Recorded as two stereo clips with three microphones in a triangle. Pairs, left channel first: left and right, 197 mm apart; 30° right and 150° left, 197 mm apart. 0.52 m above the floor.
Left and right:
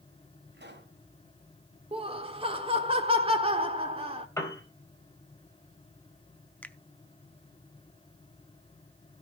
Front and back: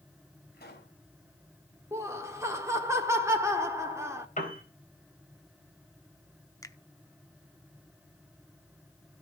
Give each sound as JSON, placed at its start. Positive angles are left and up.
{"t": 0.5, "sound": "a pop", "azimuth_deg": -65, "distance_m": 3.5}
{"t": 1.9, "sound": "laughter", "azimuth_deg": -135, "distance_m": 1.0}
{"t": 4.4, "sound": "a piano", "azimuth_deg": 15, "distance_m": 3.5}
{"t": 6.6, "sound": "a finger snap", "azimuth_deg": 15, "distance_m": 0.7}